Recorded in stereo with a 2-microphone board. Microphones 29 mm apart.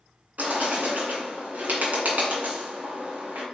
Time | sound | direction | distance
0.4 | a bird | 80° right | 1.8 m